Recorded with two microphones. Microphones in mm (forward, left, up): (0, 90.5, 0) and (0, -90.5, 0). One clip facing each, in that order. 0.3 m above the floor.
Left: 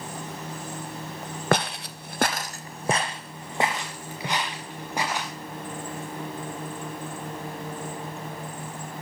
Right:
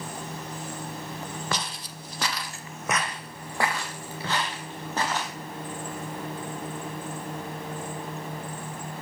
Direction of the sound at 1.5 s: 55° left (ahead or behind).